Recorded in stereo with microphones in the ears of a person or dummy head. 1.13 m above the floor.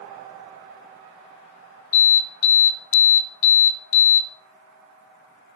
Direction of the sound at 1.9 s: 70° left (ahead or behind).